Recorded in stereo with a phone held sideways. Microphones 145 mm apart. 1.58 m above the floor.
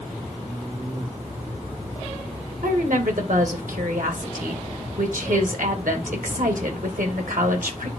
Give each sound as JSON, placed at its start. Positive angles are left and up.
{"t": 2.6, "sound": "a woman speaking", "side_deg": -75, "distance_m": 2.0}